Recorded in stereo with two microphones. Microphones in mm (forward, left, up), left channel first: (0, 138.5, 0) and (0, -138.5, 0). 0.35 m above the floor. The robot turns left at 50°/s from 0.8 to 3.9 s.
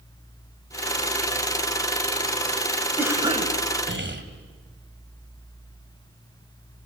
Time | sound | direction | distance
3.0 | a cough | 5° right | 1.8 m